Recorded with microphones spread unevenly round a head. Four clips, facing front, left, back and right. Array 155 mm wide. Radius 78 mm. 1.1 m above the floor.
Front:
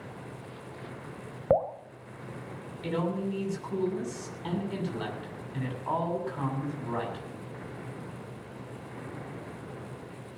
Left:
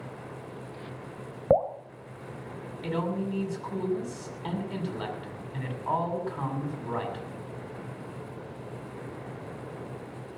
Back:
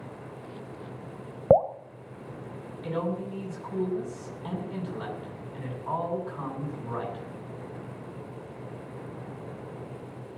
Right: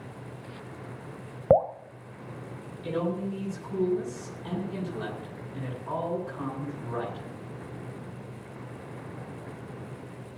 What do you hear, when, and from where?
1.5 s dripping: 160° right, 0.9 m
2.8 s a man speaking: 40° left, 7.5 m